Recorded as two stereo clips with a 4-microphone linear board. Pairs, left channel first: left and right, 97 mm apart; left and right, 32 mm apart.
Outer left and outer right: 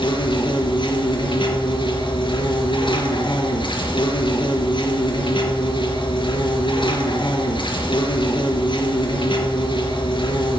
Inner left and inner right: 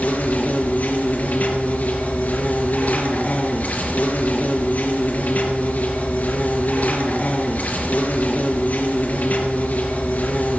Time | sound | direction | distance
0.0 | an insect | 60° left (ahead or behind) | 4 m